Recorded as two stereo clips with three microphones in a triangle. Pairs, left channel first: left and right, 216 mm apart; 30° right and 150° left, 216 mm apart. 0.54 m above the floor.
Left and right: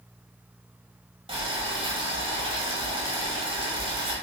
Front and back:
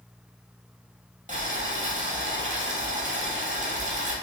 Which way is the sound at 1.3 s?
155° right.